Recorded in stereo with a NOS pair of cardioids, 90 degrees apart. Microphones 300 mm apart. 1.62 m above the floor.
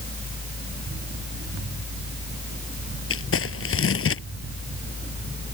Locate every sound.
0.0 s a fan: 30° left
3.1 s crumpling: 45° left